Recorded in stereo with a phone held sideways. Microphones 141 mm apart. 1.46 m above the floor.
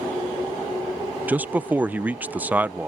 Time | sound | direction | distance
1.3 | a man speaking | 10° right (ahead or behind) | ?